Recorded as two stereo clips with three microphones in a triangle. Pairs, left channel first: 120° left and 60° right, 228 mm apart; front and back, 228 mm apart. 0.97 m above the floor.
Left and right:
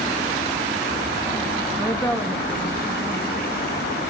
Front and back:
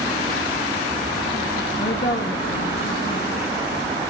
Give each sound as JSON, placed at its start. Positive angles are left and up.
{"t": 1.8, "sound": "a woman speaking", "azimuth_deg": 35, "distance_m": 1.5}